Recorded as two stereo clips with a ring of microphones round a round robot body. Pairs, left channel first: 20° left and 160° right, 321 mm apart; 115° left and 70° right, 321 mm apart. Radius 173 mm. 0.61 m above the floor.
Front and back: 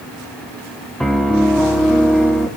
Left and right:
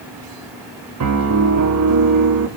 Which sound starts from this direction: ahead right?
A piano, at 1.0 s.